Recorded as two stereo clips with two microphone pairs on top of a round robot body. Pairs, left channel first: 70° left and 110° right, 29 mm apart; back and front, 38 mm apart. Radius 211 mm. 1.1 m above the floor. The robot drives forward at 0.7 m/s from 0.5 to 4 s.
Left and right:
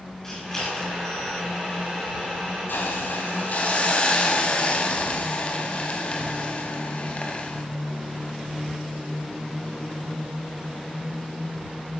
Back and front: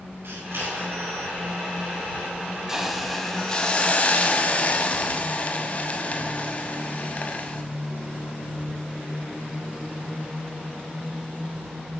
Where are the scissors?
Straight ahead, 7.5 m.